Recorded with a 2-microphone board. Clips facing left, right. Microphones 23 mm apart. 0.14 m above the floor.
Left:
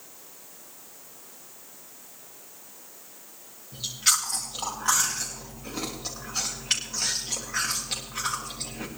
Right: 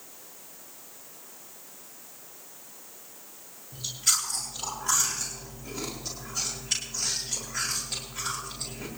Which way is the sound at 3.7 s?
65° left (ahead or behind).